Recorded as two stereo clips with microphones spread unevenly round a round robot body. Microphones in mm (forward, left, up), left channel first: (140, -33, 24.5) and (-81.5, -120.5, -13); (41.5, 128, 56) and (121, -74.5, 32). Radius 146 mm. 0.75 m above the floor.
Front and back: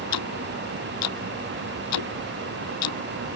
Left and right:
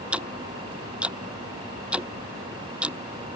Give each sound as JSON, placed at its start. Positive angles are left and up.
{"t": 0.1, "sound": "ticking", "azimuth_deg": 15}